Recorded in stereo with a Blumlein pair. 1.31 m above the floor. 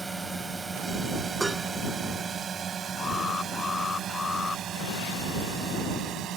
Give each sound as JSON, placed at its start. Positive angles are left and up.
{"t": 0.0, "sound": "a drone", "azimuth_deg": -10}
{"t": 1.4, "sound": "dishes clattering", "azimuth_deg": -10}
{"t": 3.0, "sound": "an alarm", "azimuth_deg": 20}